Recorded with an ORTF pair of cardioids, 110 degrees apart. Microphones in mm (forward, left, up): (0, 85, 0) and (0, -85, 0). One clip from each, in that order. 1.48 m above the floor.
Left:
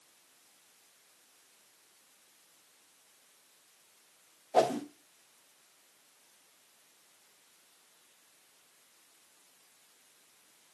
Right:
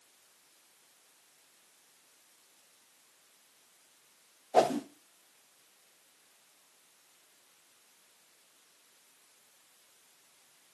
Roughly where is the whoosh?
Ahead.